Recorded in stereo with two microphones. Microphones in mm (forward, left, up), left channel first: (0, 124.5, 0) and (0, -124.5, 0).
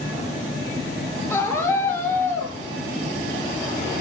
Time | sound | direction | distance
1.3 | a scream | 10° left (ahead or behind) | 6 m